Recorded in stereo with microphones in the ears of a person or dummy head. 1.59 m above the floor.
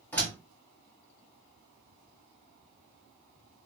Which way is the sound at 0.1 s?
15° left (ahead or behind).